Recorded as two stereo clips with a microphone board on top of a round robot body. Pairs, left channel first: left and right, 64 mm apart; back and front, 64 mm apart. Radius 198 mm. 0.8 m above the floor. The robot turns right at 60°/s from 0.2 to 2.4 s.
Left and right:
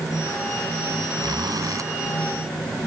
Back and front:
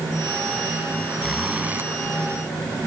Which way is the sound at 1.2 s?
95° right.